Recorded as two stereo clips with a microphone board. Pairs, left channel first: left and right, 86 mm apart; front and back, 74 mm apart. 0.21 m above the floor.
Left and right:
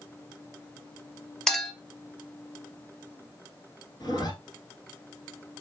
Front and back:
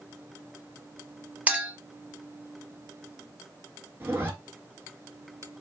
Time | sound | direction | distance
1.5 | a clink | 170° left | 0.6 m
4.0 | a zipper | 120° left | 0.8 m